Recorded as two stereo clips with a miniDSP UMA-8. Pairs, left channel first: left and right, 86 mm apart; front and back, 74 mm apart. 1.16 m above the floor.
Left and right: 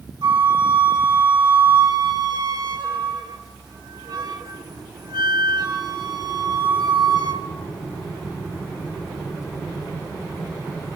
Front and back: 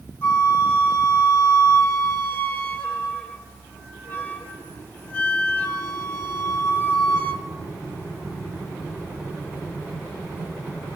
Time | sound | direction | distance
0.2 | a flute | 70° right | 4.5 m